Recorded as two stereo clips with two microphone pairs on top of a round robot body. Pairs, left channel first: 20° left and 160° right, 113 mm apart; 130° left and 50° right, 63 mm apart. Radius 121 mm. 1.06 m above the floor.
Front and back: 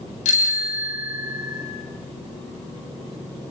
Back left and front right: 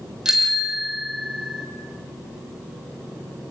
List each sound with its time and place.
0.2 s a bicycle bell: 30° left, 3.5 m